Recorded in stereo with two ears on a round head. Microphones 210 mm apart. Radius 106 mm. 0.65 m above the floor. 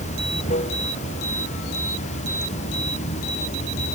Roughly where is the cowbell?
I don't hear a cowbell.